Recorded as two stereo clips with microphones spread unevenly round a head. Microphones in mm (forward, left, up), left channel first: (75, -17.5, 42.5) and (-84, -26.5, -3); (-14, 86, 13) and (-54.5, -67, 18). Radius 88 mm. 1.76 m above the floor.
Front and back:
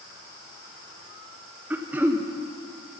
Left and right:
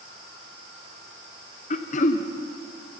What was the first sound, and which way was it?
Throat clearing, 90° left.